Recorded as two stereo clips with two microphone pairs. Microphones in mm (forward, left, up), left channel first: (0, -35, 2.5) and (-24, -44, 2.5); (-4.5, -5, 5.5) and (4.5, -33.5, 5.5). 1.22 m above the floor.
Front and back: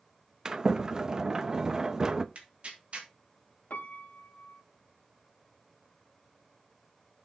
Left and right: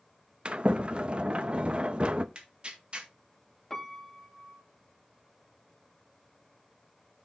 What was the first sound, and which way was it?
A sliding door, 105° right.